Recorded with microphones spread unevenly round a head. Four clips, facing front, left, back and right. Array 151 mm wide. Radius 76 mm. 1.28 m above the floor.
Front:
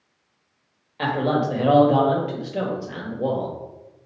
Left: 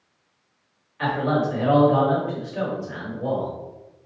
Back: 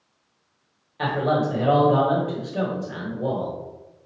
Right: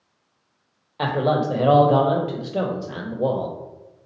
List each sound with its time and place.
1.0 s a man speaking: 85° right, 1.0 m